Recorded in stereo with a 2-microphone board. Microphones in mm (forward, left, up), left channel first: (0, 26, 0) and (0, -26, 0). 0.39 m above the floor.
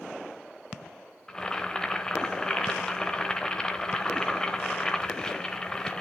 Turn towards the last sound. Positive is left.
turn(degrees=15)  # may be behind; listen again after turning